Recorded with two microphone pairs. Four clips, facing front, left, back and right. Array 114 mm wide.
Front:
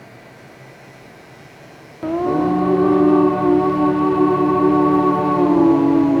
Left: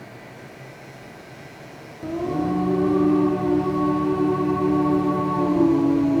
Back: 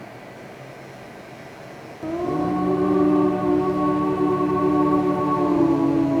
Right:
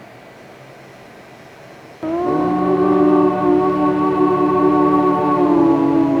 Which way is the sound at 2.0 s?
60° right.